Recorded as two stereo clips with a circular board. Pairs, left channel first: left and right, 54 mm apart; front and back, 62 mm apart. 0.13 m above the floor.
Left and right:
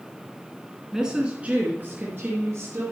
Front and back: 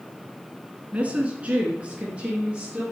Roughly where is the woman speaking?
Behind.